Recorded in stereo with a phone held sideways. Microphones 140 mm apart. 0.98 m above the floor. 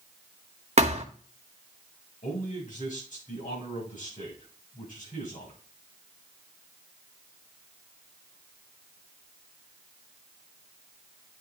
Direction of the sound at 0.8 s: 50° right (ahead or behind).